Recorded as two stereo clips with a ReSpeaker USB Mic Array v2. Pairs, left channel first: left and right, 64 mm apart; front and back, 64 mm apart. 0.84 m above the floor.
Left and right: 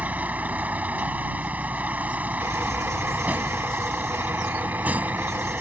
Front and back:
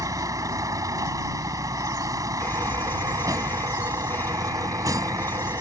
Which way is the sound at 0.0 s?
155° right.